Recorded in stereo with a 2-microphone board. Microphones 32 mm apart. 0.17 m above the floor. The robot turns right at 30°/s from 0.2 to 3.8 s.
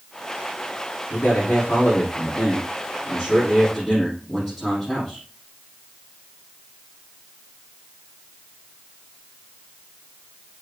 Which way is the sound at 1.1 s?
100° left.